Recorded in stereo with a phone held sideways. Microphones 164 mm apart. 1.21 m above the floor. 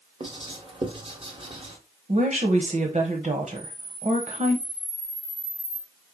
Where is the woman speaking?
50° right (ahead or behind), 1.0 m.